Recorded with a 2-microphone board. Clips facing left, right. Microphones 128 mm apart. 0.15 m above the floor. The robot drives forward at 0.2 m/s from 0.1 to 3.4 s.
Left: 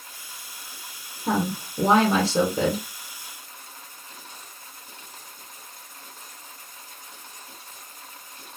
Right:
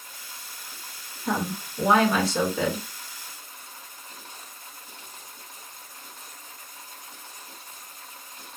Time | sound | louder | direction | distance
1.3 | a woman speaking | left 3 dB | 35° left (ahead or behind) | 1.9 m